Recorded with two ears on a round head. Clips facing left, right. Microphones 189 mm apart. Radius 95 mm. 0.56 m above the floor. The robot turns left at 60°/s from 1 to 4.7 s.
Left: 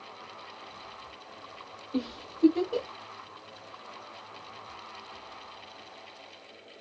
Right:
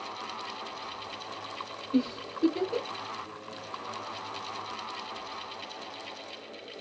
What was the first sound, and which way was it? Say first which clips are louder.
A giggle: right 5 dB; 45° right (ahead or behind).